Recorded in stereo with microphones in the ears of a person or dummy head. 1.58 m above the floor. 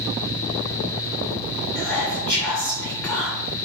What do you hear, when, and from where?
1.8 s whispering: 10° left (ahead or behind), 1.3 m